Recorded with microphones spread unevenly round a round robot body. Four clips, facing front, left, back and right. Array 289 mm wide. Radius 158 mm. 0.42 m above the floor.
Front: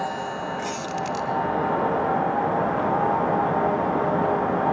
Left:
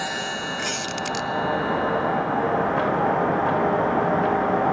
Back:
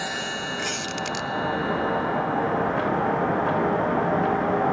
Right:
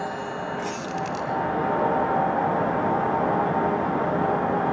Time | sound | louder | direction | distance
0.6 | a squeak | even, front 2 dB | 95° left | 1.9 m